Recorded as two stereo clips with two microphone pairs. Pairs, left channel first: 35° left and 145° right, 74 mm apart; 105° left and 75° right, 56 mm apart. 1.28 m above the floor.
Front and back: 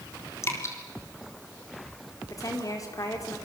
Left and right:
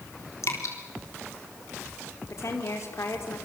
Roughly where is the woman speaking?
Left.